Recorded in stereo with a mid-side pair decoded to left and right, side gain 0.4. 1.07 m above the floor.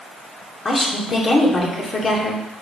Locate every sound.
0.7 s a woman speaking: 40° left, 2.5 m